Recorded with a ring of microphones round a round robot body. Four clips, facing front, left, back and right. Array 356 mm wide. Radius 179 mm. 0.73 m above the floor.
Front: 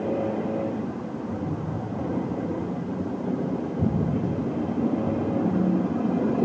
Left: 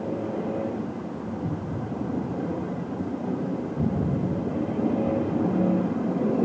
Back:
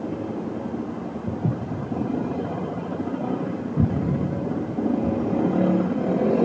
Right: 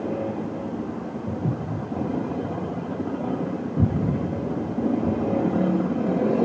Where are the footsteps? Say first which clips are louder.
Right 4 dB, back 4 dB; 160° right, 3.5 m; by 5.2 s 155° right, 6 m.